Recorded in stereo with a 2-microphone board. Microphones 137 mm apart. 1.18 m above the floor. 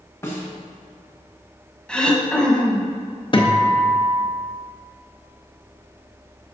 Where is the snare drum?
20° left (ahead or behind), 1.4 m.